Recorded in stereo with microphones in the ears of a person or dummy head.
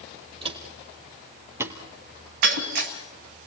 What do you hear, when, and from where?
0.4 s footsteps: 30° right (ahead or behind), 2.5 m; by 1.8 s 10° right (ahead or behind), 1.8 m
2.4 s breaking glass: 60° right (ahead or behind), 2 m